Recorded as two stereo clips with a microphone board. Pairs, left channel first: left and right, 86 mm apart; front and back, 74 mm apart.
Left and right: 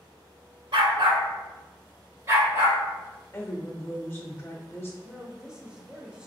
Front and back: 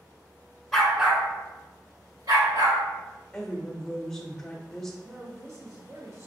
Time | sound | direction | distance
0.7 | a dog barking | 85° right | 0.9 m
3.3 | a woman speaking | 80° left | 0.9 m
5.0 | a woman speaking | 165° right | 1.0 m